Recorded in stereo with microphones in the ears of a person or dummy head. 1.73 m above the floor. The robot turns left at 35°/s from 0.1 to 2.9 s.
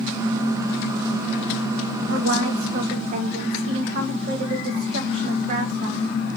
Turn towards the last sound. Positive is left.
turn(degrees=-45)  # may be behind; listen again after turning